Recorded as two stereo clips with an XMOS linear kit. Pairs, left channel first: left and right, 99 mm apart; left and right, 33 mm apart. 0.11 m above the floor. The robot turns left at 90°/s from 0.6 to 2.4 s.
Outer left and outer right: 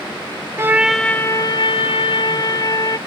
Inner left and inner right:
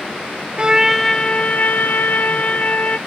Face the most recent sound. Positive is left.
turn(degrees=50)